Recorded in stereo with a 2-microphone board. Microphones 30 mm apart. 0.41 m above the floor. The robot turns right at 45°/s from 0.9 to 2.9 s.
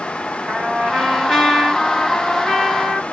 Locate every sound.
0.5 s a trumpet: 20° right, 1.6 m; by 3.0 s 70° left, 1.6 m